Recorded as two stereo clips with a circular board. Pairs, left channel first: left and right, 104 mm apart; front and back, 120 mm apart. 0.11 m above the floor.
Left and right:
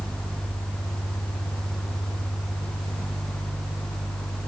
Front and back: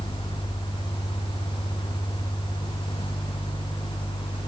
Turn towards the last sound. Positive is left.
No sound to turn to.